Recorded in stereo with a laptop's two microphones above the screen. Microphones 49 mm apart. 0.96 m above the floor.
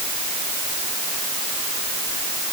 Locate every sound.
Only background noise.